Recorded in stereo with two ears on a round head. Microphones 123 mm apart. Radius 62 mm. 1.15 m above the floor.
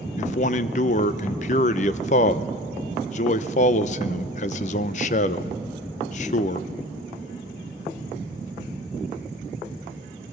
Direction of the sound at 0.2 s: 55° left (ahead or behind).